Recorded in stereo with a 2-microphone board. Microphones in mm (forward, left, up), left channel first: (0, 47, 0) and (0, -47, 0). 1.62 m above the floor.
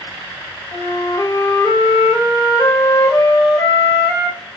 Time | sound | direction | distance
0.7 | a flute | 40° left (ahead or behind) | 0.6 m